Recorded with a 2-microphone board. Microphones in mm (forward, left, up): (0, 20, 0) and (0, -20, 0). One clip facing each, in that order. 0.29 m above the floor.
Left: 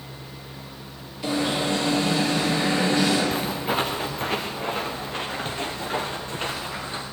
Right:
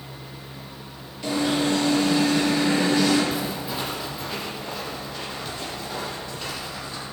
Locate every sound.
1.2 s an alarm: 5° left (ahead or behind), 6.5 m
3.3 s footsteps: 45° left (ahead or behind), 2 m; by 7.0 s 35° left (ahead or behind), 4 m